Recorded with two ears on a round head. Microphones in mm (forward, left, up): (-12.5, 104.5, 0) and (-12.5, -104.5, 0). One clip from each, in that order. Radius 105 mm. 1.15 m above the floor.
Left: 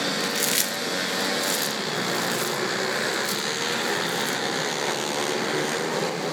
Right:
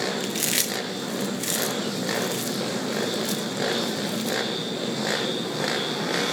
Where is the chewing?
5° left (ahead or behind), 0.8 m.